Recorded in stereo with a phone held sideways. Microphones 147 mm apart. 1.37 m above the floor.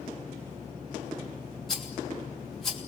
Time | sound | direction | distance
1.7 | a rattle | 5° left (ahead or behind) | 3 m